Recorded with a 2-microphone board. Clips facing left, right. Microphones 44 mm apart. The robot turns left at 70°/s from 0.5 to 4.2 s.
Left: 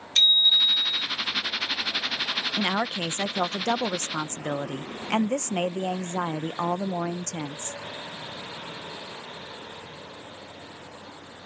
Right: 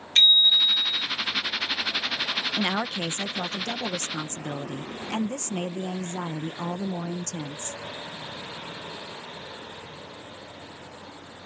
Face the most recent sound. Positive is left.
turn(degrees=55)